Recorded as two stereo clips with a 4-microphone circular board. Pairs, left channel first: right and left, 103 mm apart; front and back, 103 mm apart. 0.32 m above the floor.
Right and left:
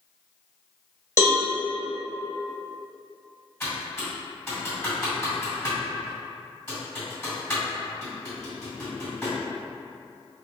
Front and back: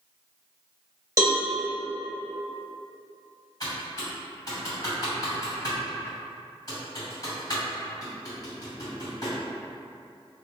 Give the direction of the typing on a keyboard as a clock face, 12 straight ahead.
1 o'clock.